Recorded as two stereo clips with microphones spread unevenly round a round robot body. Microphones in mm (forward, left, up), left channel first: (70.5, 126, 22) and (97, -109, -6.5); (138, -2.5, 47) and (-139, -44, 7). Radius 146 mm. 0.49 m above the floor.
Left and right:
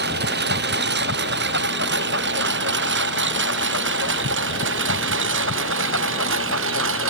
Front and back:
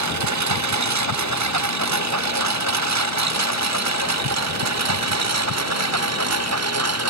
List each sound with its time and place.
0.0 s a lawn mower: 145° right; by 7.1 s 135° right